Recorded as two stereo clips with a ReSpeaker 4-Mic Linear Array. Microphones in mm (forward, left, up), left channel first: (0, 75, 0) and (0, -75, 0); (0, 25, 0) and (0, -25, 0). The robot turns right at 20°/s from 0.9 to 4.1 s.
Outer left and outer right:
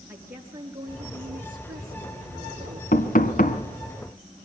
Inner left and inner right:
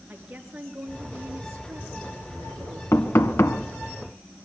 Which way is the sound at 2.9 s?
65° left (ahead or behind).